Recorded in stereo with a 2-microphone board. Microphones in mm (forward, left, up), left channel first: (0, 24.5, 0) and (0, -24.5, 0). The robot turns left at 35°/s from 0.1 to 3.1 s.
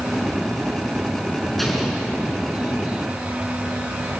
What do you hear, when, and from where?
1.6 s an explosion: 5° left (ahead or behind), 5 m; by 2.1 s 15° right (ahead or behind), 5 m